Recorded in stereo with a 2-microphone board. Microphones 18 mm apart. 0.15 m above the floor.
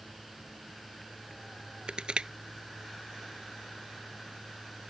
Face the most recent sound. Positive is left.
turn(degrees=-55)  # may be behind; listen again after turning